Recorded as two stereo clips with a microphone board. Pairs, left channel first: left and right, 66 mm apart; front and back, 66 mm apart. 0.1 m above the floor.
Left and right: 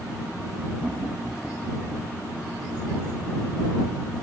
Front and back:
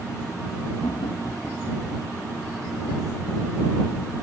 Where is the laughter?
10° right; by 2.1 s straight ahead.